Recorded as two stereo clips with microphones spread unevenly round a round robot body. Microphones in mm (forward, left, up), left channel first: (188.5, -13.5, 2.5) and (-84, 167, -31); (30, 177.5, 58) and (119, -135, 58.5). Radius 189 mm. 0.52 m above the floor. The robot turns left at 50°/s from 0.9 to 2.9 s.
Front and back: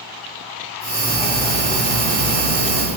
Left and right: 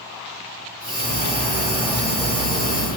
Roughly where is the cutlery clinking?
Right.